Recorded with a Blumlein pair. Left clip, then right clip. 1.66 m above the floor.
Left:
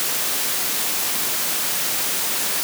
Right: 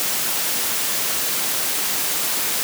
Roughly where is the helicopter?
No helicopter in this recording.